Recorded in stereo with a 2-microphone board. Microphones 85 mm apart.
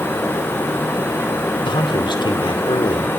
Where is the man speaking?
70° left (ahead or behind), 2.5 m.